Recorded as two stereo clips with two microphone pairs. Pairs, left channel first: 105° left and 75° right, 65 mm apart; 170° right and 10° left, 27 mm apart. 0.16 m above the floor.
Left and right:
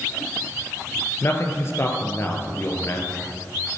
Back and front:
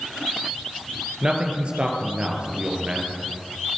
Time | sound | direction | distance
1.2 | a man speaking | 60° left | 2.5 m